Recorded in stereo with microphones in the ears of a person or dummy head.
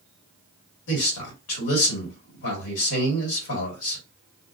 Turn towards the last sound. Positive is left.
turn(degrees=80)